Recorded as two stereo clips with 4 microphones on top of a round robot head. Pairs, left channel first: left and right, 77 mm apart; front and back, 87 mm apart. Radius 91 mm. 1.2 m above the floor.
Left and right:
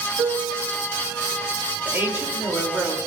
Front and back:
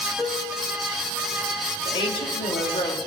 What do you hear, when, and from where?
0.2 s a piano: 75° right, 1.4 m
1.9 s a woman speaking: 25° right, 3.5 m